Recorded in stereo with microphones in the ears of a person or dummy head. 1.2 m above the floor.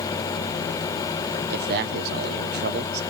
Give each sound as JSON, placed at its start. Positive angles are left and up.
{"t": 1.5, "sound": "a man speaking", "side_deg": -50, "distance_m": 0.8}